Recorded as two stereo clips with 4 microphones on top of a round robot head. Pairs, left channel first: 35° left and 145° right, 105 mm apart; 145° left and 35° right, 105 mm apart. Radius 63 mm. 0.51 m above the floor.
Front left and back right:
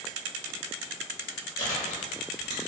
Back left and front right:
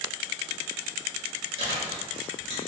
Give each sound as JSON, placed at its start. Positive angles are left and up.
{"t": 1.6, "sound": "chewing", "azimuth_deg": -10, "distance_m": 1.6}